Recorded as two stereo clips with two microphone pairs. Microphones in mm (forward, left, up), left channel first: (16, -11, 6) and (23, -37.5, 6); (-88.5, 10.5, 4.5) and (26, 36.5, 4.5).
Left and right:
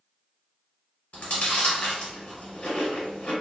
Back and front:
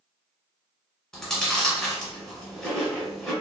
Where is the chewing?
115° left, 1.2 m.